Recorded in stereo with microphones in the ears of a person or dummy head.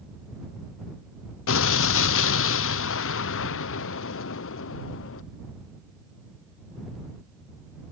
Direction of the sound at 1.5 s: 80° left.